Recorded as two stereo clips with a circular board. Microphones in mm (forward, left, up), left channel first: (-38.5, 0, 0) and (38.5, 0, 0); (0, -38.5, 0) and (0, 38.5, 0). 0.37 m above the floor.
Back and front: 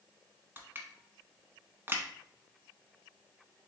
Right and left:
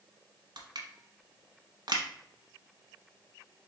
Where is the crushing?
65° left, 0.8 m.